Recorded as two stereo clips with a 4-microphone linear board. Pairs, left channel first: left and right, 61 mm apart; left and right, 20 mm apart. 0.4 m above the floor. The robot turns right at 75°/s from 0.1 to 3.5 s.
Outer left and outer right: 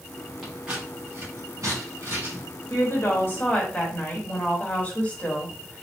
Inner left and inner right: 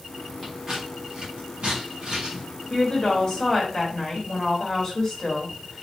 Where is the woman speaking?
80° left, 1.7 m; by 5.8 s 140° left, 1.7 m.